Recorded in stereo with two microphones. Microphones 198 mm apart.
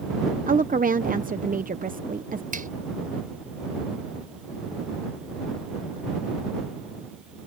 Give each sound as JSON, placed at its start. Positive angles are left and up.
{"t": 0.5, "sound": "a woman speaking", "side_deg": -45}
{"t": 2.5, "sound": "a finger snap", "side_deg": -45}